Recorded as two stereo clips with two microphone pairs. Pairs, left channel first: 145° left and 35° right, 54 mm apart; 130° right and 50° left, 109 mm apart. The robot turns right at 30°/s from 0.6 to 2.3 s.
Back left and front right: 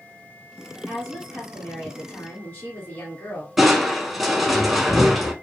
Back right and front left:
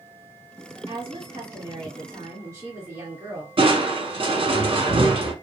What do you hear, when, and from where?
0.9 s a woman speaking: 45° left, 1.6 m; by 3.5 s 85° left, 1.6 m
3.6 s crushing: 50° left, 0.8 m